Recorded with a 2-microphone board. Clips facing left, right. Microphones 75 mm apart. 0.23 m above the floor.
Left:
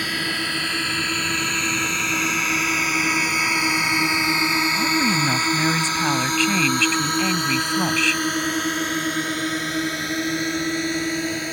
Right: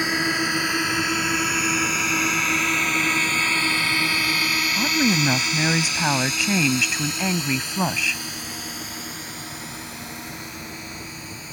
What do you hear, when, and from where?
0.0 s a drone: 20° right (ahead or behind); by 11.5 s 70° left (ahead or behind)
4.8 s a woman speaking: 15° right (ahead or behind)